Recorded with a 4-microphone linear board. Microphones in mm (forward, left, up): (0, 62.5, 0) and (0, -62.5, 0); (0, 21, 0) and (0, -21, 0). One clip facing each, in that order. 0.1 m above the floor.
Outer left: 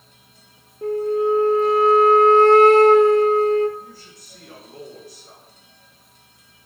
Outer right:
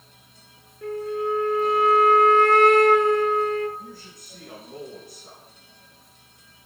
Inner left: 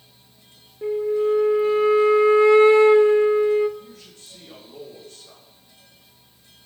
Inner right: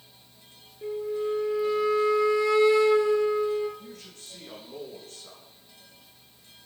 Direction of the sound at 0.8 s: 35° left (ahead or behind).